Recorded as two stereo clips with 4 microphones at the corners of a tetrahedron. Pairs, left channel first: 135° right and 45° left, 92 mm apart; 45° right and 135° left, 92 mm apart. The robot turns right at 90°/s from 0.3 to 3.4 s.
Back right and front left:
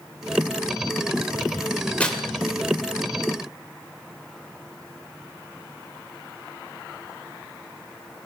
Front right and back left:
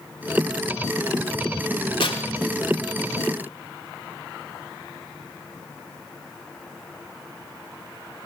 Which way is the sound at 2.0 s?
60° right.